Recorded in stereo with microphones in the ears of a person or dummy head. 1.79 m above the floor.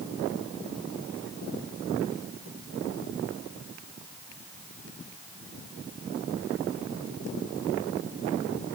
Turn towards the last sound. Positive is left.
No sound to turn to.